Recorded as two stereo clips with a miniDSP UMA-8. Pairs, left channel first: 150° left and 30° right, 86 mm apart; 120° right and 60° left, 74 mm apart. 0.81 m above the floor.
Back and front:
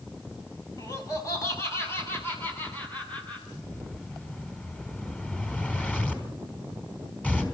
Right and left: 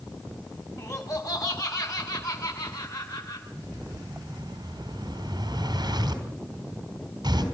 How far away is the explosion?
About 3 m.